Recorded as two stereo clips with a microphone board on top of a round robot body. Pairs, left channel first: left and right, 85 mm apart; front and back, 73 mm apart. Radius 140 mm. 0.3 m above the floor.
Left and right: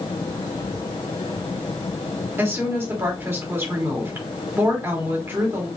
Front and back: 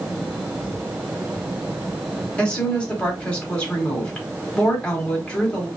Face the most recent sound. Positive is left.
turn(degrees=-65)